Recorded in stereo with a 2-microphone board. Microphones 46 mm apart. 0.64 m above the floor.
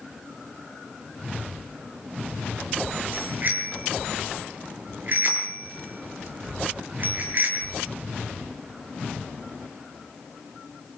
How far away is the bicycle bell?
About 7 m.